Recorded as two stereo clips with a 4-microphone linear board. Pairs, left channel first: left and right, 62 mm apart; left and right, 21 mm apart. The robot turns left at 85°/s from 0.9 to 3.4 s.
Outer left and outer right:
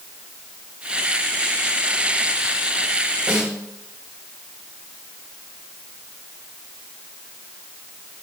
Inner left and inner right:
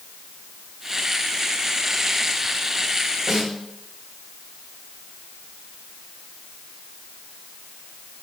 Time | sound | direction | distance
3.3 | a snare drum | 30° right (ahead or behind) | 5 m